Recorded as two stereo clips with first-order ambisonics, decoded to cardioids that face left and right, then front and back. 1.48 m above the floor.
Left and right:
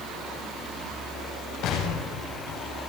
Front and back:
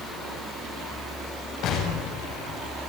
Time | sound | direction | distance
1.6 | an explosion | 45° left | 8 m